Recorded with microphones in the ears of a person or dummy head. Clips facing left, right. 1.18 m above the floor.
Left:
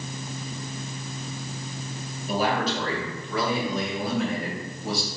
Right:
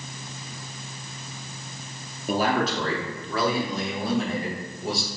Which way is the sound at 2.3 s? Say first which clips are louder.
Right 2 dB; 45° right (ahead or behind).